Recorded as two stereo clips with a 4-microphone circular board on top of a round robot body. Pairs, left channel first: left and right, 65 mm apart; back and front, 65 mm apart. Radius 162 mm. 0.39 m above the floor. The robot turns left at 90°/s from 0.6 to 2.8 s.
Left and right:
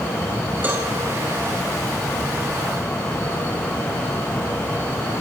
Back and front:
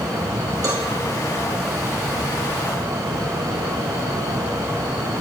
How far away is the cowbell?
About 4 m.